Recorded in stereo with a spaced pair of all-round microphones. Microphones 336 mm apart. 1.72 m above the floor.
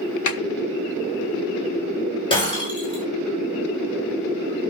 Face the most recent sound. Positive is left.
turn(degrees=15)  # may be behind; listen again after turning